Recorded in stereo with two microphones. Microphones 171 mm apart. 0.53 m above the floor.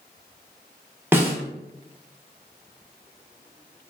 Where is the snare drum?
15° right (ahead or behind), 0.5 m.